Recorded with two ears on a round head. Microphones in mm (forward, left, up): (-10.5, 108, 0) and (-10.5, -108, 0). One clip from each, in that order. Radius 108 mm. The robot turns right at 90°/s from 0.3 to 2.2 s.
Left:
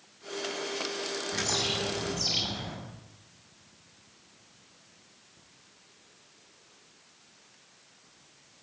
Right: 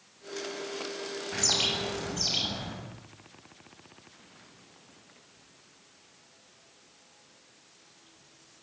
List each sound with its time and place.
1.3 s a bird: 85° right, 7.5 m; by 2.8 s 5° right, 7.5 m